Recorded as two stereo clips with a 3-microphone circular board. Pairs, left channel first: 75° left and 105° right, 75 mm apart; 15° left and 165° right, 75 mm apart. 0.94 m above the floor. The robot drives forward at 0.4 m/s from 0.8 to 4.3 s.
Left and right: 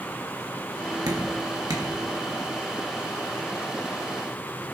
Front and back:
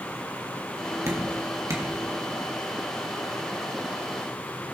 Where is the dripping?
120° right, 1.6 m; by 1.9 s 130° right, 1.8 m.